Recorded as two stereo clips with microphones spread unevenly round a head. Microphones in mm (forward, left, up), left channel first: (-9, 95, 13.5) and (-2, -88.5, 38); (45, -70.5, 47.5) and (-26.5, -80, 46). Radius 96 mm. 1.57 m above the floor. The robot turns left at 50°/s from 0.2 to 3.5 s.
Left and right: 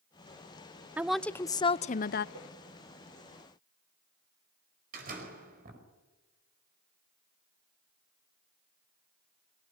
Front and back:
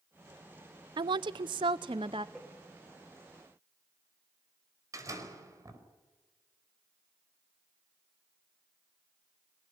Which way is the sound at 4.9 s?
130° right.